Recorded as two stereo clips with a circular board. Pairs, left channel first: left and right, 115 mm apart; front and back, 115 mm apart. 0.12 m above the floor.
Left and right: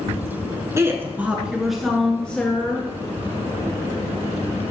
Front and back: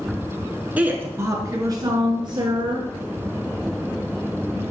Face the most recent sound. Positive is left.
turn(degrees=155)